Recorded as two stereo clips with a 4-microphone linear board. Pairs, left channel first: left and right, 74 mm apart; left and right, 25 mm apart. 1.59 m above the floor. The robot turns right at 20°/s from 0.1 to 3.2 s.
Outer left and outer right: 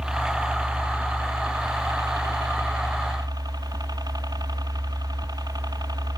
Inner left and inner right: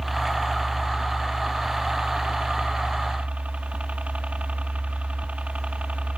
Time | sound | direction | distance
0.0 | a helicopter | 170° right | ?